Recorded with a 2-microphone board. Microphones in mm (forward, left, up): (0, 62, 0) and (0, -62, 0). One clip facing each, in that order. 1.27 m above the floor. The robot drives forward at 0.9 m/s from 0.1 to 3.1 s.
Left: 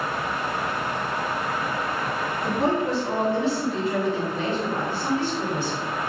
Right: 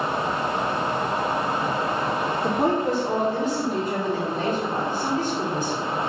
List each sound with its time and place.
2.4 s a woman speaking: 55° right (ahead or behind), 1.9 m; by 5.8 s 40° right (ahead or behind), 2.5 m